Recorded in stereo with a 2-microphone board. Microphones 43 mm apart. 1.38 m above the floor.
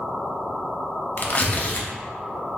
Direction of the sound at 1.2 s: 40° left (ahead or behind).